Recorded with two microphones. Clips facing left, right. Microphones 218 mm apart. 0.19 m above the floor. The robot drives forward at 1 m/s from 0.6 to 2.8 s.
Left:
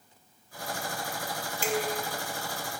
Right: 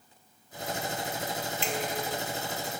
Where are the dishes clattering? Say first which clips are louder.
Left 5 dB; 45° left (ahead or behind), 1.4 m.